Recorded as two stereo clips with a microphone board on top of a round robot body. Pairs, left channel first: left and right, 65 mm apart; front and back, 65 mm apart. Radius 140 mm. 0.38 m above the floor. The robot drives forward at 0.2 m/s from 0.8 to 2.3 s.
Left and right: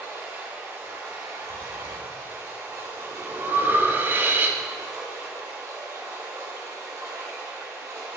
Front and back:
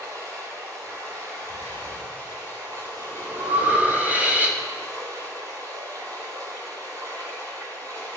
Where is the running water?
145° right, 3.5 m; by 8.2 s 150° right, 3.5 m.